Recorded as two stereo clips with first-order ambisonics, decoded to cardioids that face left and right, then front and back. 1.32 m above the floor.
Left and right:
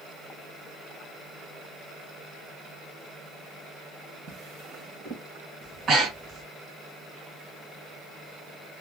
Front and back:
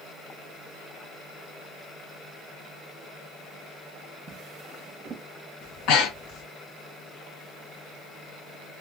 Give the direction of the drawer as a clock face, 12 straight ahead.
4 o'clock.